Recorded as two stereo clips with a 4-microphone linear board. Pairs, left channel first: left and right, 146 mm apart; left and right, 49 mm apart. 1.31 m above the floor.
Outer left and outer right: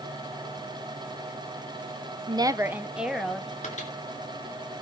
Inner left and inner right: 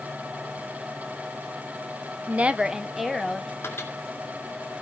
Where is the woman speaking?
35° right (ahead or behind), 0.5 m; by 3.5 s centre (ahead or behind), 1.5 m.